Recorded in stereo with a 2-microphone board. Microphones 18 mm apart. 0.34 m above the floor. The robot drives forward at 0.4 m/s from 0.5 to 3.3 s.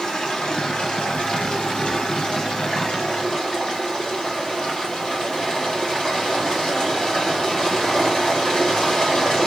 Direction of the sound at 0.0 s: 65° left (ahead or behind).